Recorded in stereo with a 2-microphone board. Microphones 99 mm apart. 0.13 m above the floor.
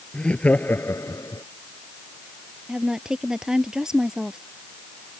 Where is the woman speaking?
5° right (ahead or behind).